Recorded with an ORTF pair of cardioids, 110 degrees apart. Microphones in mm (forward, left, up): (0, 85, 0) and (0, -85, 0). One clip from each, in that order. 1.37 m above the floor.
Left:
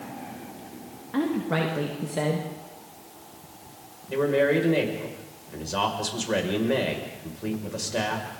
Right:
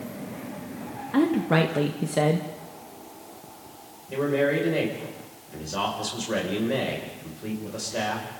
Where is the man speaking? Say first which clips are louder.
Left 2 dB; 20° left, 6.5 m.